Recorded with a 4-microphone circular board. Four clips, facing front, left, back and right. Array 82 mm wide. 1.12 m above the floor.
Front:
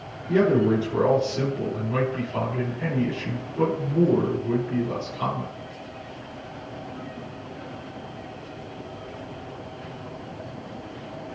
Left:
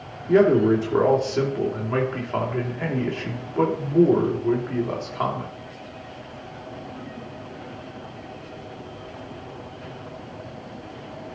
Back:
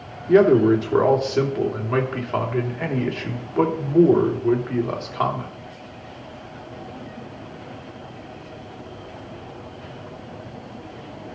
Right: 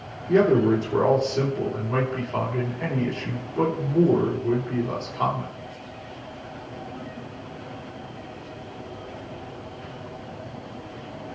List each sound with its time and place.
0.3 s a man speaking: 155° left, 3 m